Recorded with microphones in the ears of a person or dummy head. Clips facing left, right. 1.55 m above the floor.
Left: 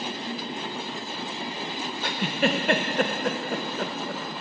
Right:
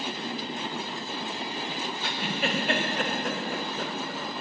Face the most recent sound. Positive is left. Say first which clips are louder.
# left 7 dB
turn(degrees=35)  # may be behind; listen again after turning